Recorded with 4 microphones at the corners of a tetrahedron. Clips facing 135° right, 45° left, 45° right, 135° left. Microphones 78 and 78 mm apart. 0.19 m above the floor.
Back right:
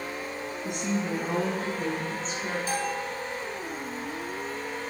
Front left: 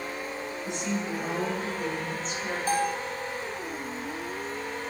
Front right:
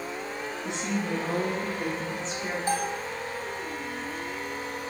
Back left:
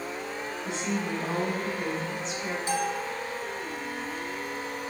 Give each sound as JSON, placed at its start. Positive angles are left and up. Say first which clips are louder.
{"t": 0.6, "sound": "a woman speaking", "louder": "back right 2 dB, even", "azimuth_deg": -110, "distance_m": 3.0}
{"t": 2.7, "sound": "a bell", "louder": "front left 7 dB, even", "azimuth_deg": 0, "distance_m": 1.2}